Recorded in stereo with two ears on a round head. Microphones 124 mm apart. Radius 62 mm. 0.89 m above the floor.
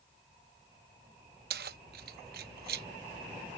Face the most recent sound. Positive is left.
turn(degrees=-80)